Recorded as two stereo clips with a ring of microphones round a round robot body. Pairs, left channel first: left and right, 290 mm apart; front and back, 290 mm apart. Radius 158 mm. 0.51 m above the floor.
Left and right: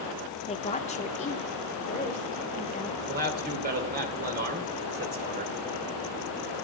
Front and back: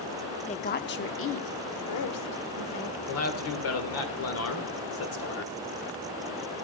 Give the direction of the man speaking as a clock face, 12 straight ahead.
1 o'clock.